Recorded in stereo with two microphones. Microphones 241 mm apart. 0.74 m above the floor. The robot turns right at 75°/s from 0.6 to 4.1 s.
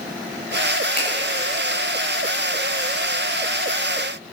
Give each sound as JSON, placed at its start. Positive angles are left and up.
{"t": 1.0, "sound": "a finger snap", "side_deg": 40, "distance_m": 4.5}